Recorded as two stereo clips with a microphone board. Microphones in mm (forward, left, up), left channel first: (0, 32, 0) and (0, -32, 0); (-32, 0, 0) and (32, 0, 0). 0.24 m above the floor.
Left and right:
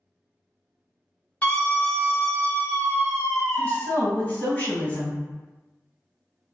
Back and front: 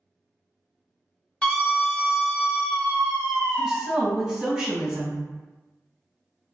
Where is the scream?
125° left, 1.4 m.